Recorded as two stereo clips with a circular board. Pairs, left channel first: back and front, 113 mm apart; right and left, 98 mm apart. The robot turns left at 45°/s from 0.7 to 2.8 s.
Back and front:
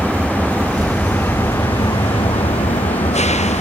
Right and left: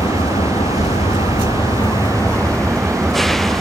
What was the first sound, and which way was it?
An engine running, 85° right.